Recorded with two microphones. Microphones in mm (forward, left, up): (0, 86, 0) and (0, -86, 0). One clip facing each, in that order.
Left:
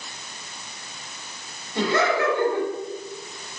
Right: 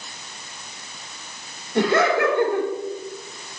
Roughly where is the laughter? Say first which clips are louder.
Right 3 dB; right.